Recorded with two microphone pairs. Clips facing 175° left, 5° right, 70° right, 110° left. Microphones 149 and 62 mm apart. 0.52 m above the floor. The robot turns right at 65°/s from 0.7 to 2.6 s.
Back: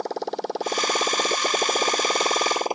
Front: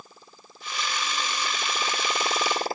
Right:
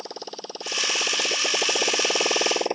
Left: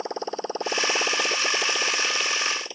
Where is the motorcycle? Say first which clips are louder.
Back 24 dB, left 7 dB; 175° left; by 2.8 s 110° right.